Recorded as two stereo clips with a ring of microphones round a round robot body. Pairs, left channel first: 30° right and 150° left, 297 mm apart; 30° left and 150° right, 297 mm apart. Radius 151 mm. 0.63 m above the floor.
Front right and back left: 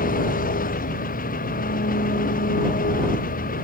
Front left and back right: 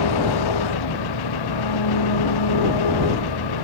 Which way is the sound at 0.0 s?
35° left.